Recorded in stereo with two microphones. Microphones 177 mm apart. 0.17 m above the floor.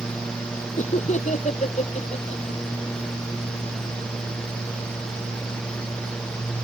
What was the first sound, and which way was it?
Laughter, 45° left (ahead or behind).